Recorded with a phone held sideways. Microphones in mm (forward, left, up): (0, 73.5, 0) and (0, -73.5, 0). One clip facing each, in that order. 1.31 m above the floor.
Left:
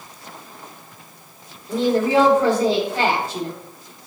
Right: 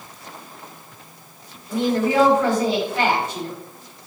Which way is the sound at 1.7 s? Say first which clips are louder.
Left 2 dB; 35° left (ahead or behind).